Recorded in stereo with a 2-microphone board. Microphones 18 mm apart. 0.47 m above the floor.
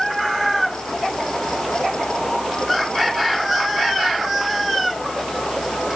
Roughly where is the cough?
I don't hear a cough.